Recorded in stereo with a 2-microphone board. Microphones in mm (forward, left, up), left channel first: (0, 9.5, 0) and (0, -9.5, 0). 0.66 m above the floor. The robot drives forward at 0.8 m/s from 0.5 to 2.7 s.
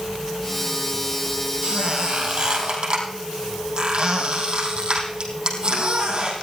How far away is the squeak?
About 3.5 m.